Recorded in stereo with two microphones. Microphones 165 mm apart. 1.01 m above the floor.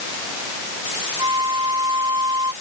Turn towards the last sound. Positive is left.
turn(degrees=-25)  # may be behind; listen again after turning